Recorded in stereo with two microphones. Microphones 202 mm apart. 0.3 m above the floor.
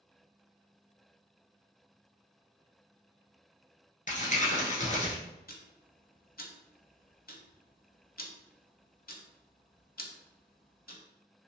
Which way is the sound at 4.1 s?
40° left (ahead or behind).